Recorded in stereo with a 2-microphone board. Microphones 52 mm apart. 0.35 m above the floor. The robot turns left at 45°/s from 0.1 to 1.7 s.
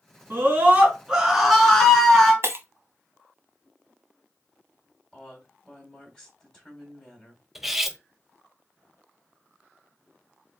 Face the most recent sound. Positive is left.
turn(degrees=-5)  # may be behind; listen again after turning